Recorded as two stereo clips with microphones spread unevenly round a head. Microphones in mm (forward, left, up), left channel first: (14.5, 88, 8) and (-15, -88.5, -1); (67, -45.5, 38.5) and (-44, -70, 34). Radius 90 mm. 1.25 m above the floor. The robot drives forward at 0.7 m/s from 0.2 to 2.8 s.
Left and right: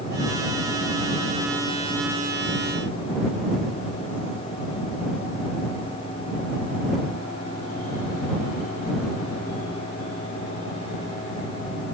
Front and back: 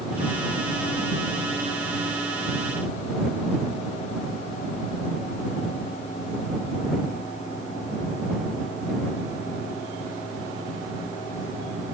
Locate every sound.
Only background noise.